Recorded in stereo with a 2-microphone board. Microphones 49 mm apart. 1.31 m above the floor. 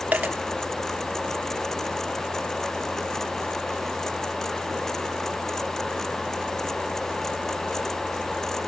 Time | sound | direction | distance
0.1 | a dropped coin | 35° right (ahead or behind) | 1.2 m